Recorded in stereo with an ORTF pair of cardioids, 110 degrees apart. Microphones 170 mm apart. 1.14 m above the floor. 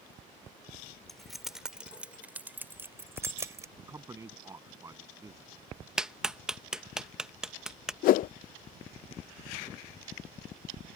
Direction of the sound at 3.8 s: 20° right.